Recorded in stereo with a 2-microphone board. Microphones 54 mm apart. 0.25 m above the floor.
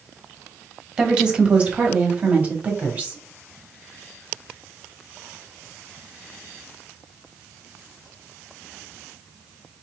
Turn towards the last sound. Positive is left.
turn(degrees=-35)  # may be behind; listen again after turning